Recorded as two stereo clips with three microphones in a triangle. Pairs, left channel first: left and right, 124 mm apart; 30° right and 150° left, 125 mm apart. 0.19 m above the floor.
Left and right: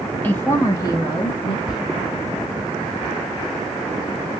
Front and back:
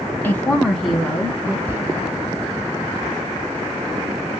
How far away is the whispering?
About 1.1 m.